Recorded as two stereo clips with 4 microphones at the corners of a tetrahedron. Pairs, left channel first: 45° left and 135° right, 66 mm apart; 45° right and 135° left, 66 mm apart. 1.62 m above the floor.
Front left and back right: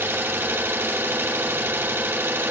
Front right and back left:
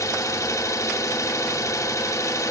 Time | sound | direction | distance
0.0 | an engine running | 75° right | 2.5 m